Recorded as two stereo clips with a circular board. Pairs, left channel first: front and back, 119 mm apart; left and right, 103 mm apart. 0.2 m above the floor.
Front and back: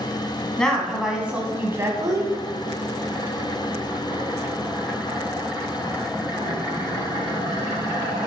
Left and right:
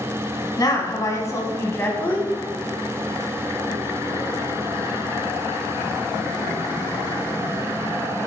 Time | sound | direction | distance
0.6 | a woman speaking | 80° left | 1.7 m